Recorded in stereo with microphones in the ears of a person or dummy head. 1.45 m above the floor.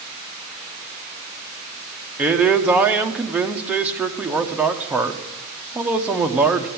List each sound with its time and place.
2.2 s a man speaking: 10° right (ahead or behind), 1.0 m